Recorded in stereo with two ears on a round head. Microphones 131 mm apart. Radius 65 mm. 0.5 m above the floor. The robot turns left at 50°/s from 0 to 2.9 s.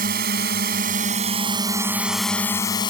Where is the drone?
70° right; by 2.9 s 145° left.